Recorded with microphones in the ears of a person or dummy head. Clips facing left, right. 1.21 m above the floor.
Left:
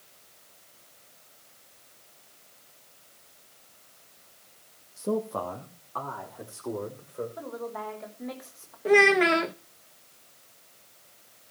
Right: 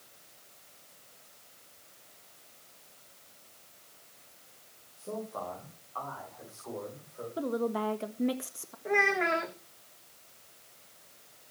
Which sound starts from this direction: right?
A woman speaking, at 7.4 s.